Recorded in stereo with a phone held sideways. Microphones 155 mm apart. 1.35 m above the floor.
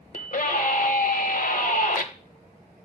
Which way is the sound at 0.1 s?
60° left (ahead or behind).